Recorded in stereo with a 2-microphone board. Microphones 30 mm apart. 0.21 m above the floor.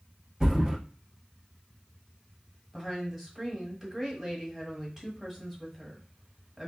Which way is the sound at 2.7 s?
10° right (ahead or behind).